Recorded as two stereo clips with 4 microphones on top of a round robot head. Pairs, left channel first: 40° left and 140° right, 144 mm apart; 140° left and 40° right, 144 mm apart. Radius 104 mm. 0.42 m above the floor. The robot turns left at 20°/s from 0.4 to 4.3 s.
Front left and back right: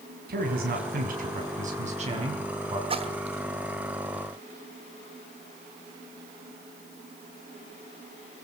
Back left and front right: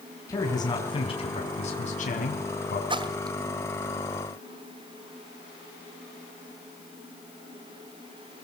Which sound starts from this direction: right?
A splash, at 2.9 s.